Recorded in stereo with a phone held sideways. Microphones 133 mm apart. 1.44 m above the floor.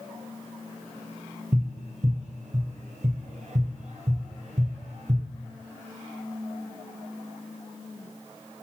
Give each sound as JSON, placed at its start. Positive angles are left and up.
{"t": 1.5, "sound": "tapping", "side_deg": -60, "distance_m": 0.9}